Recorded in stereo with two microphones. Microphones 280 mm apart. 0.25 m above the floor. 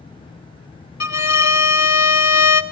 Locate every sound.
1.0 s a violin: 65° left (ahead or behind), 0.8 m